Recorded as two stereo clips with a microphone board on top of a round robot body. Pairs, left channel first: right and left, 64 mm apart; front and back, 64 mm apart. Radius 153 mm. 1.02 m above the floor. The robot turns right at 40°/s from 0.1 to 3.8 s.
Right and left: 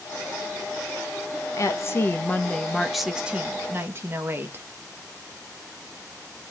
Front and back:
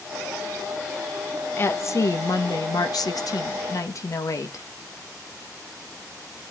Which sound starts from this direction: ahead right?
A woman speaking, at 1.6 s.